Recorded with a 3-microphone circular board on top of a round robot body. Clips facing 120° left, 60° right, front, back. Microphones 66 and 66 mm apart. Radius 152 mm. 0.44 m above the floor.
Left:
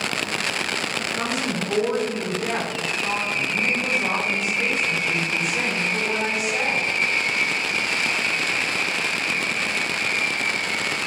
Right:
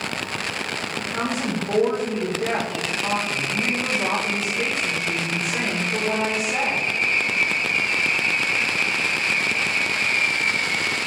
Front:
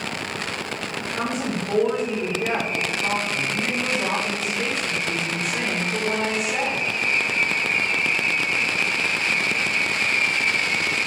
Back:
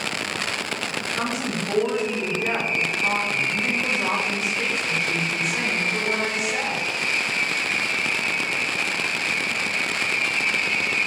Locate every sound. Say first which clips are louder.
1.0 s a woman speaking: even, front 1 dB; 95° right, 2.5 m